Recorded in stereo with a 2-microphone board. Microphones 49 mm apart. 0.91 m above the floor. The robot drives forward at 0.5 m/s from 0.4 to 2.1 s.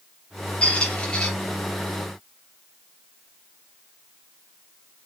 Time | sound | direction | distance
0.6 | a squeak | 25° left (ahead or behind) | 0.9 m